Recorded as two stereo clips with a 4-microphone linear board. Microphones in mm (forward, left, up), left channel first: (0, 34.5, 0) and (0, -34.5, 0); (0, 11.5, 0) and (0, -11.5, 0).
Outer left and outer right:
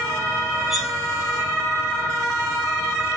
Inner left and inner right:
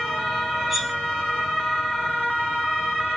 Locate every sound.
0.7 s cutlery clinking: centre (ahead or behind), 0.7 m